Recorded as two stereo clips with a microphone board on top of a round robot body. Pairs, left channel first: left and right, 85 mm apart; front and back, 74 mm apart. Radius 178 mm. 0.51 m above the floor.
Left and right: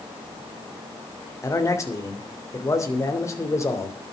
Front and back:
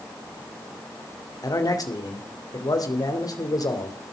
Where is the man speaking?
35° left, 3 m.